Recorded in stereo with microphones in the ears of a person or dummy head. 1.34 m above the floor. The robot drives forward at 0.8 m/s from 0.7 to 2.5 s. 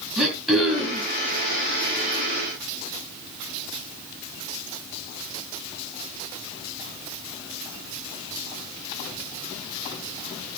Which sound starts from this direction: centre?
Throat clearing, at 0.2 s.